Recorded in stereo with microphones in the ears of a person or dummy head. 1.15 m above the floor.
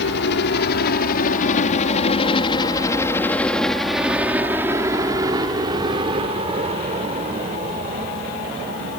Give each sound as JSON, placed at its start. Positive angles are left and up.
{"t": 0.0, "sound": "a helicopter", "side_deg": 65}